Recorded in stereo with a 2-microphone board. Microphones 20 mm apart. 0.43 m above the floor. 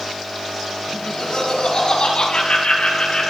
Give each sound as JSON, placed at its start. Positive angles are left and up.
{"t": 0.9, "sound": "laughter", "side_deg": 50, "distance_m": 4.0}